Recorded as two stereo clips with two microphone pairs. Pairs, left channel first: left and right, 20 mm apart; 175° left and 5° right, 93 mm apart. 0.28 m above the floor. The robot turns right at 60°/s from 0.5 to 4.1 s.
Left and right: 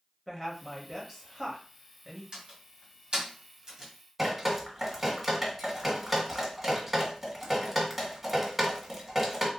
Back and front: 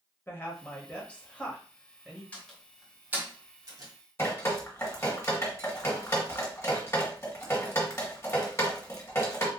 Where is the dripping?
160° right, 1.5 m.